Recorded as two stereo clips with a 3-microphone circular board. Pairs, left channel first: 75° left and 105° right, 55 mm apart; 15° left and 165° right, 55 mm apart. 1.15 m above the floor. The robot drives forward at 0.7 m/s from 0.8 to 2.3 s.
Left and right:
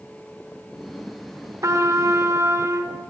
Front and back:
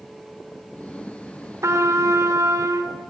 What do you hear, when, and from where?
1.6 s a trumpet: 130° right, 3 m; by 3.0 s 135° right, 3.5 m